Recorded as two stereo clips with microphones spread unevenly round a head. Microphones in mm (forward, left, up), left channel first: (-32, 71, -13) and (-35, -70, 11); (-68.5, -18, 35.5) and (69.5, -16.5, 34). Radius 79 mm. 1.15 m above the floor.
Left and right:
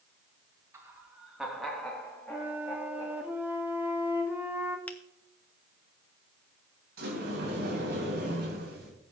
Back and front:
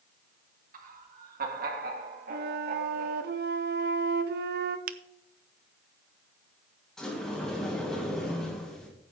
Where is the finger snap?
10° left, 0.5 m.